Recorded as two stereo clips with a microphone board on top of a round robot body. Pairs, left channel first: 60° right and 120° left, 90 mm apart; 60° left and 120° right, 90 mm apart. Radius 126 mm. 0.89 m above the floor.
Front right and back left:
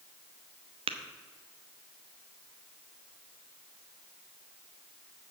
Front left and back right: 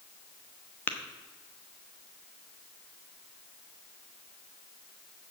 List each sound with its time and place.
0.9 s tapping: 130° left, 1.0 m